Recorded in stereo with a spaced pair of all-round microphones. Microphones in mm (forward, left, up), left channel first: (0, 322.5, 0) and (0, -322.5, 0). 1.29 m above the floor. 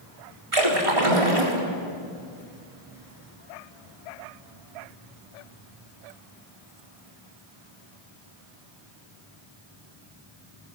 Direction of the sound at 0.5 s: 50° right (ahead or behind).